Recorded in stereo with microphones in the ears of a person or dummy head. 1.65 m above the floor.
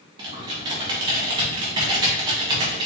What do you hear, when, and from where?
0.2 s typing on a keyboard: 30° right (ahead or behind), 1.3 m